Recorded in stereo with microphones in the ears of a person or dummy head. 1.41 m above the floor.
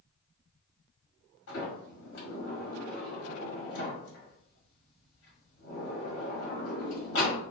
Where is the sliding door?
80° left, 1.6 m.